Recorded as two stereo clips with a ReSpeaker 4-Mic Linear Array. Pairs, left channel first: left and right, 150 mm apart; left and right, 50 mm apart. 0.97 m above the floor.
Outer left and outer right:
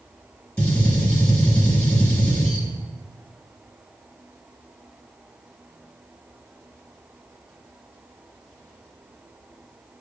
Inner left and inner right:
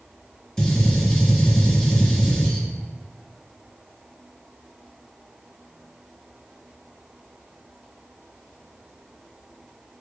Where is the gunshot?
10° left (ahead or behind), 1.1 m.